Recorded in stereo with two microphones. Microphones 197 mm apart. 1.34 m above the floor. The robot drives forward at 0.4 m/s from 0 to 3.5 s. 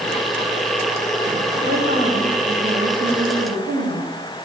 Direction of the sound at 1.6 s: 50° right (ahead or behind).